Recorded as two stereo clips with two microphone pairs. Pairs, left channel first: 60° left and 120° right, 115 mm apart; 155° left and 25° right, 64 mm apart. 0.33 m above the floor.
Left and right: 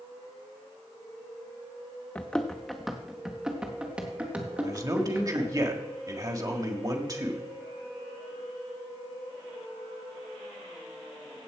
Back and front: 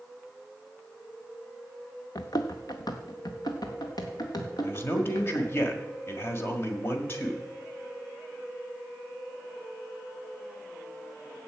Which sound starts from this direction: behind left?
Running footsteps, at 2.1 s.